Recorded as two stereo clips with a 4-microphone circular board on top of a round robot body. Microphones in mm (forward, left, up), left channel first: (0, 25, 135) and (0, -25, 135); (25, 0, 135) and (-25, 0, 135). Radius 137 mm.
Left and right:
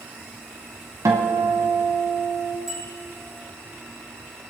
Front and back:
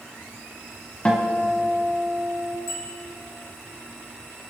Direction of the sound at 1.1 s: 70° right.